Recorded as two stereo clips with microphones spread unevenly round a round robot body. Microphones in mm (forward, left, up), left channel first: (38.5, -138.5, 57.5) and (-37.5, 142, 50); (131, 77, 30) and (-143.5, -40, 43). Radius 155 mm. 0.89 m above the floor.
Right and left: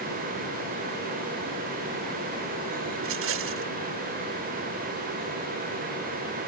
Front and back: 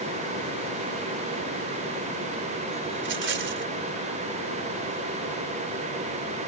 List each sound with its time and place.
3.0 s a rattle: 150° left